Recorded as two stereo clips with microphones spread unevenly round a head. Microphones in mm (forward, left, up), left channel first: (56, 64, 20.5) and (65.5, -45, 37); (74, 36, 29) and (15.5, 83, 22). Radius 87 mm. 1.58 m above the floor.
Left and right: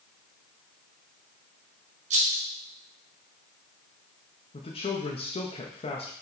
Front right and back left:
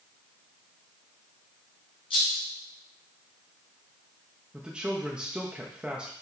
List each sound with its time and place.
2.1 s a rattle: 85° right, 1.6 m
4.5 s a man speaking: 60° left, 1.1 m